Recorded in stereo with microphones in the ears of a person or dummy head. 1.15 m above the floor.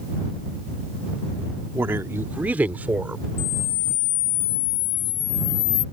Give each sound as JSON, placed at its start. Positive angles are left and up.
{"t": 1.7, "sound": "a woman speaking", "side_deg": -10}
{"t": 3.4, "sound": "a camera shutter", "side_deg": 55}